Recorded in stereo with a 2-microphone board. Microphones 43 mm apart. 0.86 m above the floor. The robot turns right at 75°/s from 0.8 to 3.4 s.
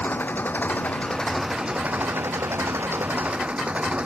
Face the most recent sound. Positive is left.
turn(degrees=-30)